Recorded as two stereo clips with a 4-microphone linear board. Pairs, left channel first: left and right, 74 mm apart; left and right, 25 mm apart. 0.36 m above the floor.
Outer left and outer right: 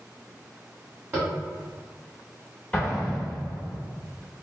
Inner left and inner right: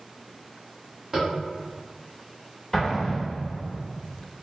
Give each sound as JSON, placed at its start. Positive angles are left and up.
{"t": 1.1, "sound": "tapping", "side_deg": -25, "distance_m": 1.3}
{"t": 2.7, "sound": "an explosion", "side_deg": 20, "distance_m": 0.9}